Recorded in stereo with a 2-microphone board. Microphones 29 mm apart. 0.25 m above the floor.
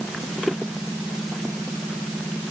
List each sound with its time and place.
Only background noise.